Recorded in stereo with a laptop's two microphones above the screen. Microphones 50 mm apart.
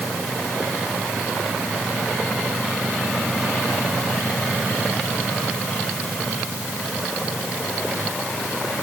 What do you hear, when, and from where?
Only background noise.